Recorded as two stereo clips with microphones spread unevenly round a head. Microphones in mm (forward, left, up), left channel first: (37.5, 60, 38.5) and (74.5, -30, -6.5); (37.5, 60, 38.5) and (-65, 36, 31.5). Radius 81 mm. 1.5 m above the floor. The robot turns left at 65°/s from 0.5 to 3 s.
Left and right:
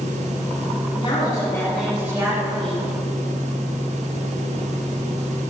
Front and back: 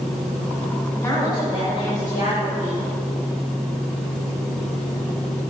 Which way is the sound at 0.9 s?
85° left.